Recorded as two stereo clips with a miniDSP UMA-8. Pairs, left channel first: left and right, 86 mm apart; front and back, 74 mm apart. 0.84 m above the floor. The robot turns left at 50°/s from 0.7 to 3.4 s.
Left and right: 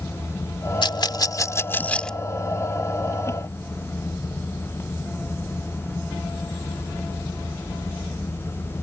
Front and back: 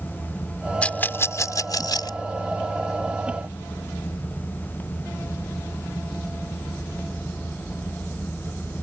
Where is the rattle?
70° left; by 2.2 s 5° left.